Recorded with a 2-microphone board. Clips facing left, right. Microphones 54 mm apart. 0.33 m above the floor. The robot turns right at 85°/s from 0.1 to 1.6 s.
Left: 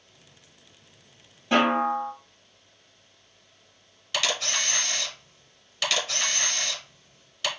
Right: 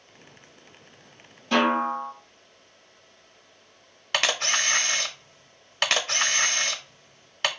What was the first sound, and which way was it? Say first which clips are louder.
A snare drum: even; 20° left (ahead or behind).